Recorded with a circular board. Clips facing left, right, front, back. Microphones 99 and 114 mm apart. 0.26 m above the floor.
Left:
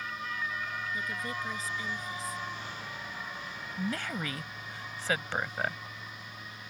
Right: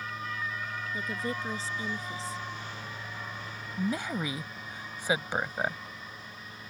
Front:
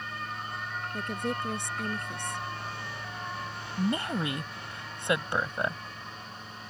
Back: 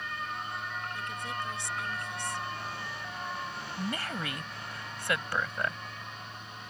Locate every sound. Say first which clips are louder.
0.9 s a woman speaking: right 2 dB, front 5 dB; 30° right
3.8 s a woman speaking: right 3 dB, front 7 dB; 35° right